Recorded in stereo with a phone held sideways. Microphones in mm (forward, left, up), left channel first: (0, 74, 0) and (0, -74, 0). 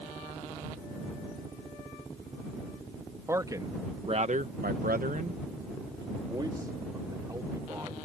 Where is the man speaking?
20° right (ahead or behind).